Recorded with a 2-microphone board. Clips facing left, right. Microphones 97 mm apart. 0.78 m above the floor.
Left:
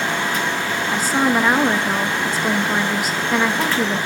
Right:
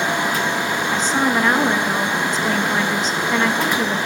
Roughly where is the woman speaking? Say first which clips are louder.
Left 2 dB; centre.